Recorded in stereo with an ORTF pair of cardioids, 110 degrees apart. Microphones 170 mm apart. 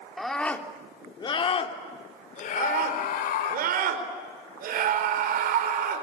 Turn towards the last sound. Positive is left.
turn(degrees=-65)